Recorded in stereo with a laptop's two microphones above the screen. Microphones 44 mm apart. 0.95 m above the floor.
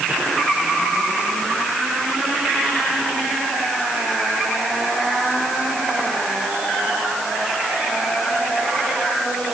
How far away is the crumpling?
I don't hear crumpling.